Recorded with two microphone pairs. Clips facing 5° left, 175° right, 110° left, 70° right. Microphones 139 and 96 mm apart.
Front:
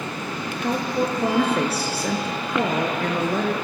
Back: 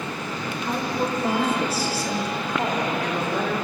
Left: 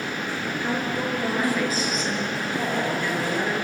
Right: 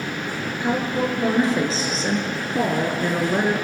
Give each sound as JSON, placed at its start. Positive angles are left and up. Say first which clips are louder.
{"t": 0.6, "sound": "a woman speaking", "louder": "front 3 dB, right 6 dB", "azimuth_deg": 0, "distance_m": 4.0}